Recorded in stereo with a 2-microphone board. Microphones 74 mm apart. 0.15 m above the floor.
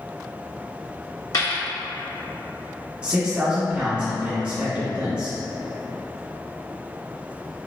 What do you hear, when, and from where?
1.3 s a dropped coin: 60° left (ahead or behind), 1.2 m
3.0 s a man speaking: 15° right (ahead or behind), 1.6 m